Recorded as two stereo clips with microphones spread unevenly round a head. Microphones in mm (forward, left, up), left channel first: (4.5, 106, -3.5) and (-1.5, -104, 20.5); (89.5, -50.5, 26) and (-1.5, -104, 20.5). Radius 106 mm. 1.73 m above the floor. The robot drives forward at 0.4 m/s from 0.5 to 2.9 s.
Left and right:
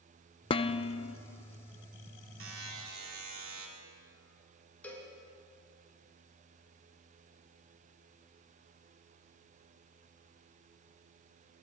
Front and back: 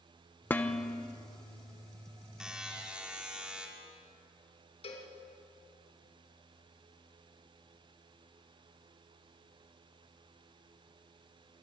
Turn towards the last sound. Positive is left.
turn(degrees=5)